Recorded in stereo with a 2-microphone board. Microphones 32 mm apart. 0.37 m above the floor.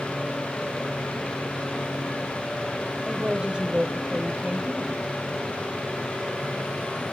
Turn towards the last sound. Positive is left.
turn(degrees=-35)  # may be behind; listen again after turning